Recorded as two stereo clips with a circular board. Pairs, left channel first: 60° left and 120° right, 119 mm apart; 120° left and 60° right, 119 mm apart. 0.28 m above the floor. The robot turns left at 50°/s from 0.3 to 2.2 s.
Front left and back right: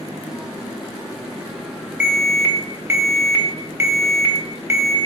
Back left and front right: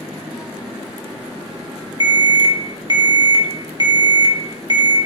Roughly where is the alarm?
Ahead right.